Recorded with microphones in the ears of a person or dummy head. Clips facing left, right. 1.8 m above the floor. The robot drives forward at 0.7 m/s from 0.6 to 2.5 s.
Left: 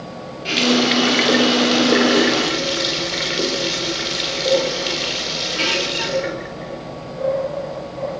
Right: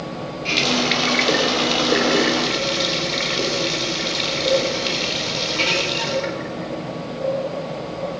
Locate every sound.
0.5 s a running tap: 10° left (ahead or behind), 3 m